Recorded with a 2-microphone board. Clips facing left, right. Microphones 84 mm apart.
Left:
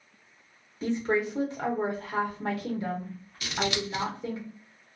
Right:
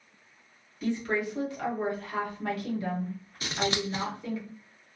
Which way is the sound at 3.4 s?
35° right (ahead or behind).